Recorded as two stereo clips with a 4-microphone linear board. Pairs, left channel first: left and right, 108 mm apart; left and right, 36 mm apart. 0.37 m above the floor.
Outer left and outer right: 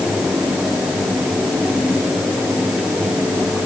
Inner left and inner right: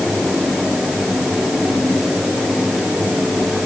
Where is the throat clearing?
No throat clearing in this recording.